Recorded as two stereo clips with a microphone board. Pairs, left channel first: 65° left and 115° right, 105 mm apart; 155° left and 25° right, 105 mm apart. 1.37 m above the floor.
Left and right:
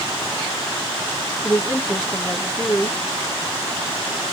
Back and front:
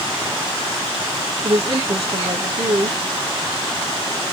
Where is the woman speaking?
10° right, 1.5 m.